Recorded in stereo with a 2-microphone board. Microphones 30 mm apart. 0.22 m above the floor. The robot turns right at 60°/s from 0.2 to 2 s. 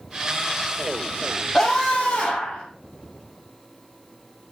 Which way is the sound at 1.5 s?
25° left (ahead or behind).